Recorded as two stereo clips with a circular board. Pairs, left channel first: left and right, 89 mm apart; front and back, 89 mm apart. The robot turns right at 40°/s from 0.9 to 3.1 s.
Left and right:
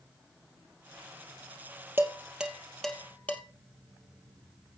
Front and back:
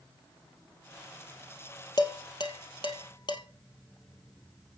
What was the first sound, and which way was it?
Dishes clattering, 25° right.